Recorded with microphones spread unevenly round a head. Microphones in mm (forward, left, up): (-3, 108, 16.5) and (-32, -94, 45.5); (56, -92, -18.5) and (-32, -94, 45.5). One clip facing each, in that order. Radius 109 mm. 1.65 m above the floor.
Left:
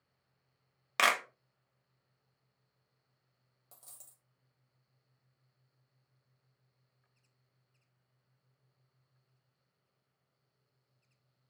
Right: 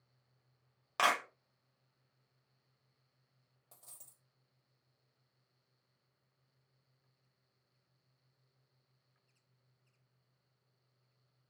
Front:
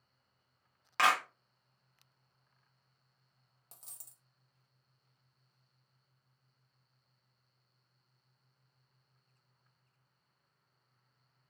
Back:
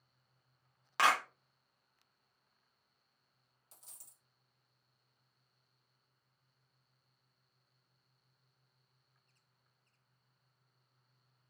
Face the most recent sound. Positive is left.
turn(degrees=-5)